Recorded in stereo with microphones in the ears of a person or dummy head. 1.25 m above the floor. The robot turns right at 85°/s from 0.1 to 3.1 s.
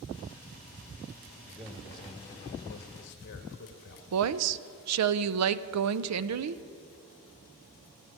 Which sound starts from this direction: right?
A woman speaking, at 4.1 s.